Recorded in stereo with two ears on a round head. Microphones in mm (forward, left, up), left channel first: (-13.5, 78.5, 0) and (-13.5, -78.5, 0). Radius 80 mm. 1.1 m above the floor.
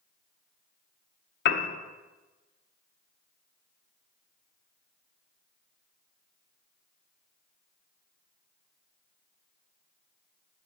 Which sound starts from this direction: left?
A piano, at 1.4 s.